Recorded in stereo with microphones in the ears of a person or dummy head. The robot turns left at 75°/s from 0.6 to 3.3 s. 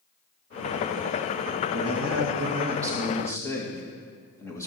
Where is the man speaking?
70° right, 2 m; by 4.7 s 170° left, 2 m.